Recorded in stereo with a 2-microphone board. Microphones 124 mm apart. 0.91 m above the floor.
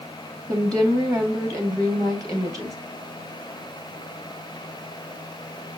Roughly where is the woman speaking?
Right.